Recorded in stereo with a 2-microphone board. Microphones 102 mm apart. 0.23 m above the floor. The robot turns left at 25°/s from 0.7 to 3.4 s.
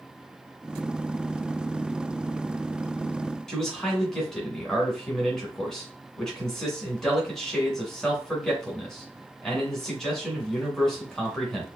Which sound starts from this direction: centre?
A man speaking, at 3.5 s.